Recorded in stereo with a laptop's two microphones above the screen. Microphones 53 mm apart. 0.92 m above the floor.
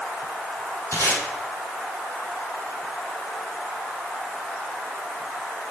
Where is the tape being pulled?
55° left (ahead or behind), 5 m.